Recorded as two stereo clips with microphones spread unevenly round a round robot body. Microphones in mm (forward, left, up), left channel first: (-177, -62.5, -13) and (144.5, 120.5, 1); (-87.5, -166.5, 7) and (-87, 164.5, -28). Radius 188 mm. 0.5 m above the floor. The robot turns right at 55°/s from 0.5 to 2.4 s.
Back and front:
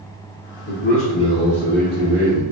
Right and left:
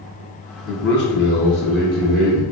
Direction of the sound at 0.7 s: 130° right.